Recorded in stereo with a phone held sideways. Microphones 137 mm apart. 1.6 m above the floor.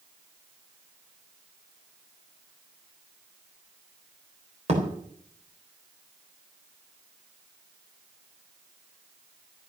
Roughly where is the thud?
Right.